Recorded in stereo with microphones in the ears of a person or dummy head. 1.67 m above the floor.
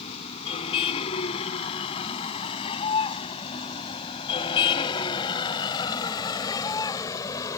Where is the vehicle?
30° left (ahead or behind); by 7.6 s 20° left (ahead or behind).